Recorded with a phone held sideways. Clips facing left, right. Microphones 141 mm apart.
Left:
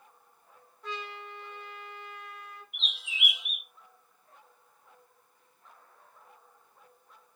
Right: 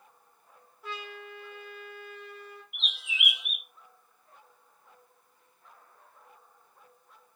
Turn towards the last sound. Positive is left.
turn(degrees=30)  # may be behind; listen again after turning